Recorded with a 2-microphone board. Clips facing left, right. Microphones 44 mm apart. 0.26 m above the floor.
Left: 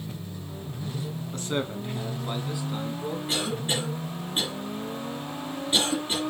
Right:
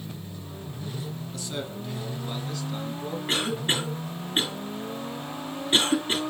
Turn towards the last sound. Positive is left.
turn(degrees=-45)  # may be behind; listen again after turning